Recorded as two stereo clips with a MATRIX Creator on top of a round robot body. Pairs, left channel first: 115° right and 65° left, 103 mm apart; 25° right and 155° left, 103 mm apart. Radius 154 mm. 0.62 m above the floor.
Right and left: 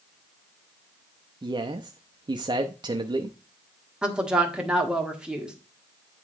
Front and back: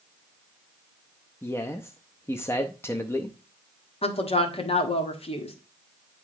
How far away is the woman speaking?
About 1.6 m.